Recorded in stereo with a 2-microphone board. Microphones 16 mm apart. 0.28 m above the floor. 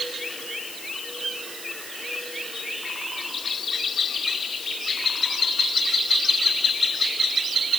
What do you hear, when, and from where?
Only background noise.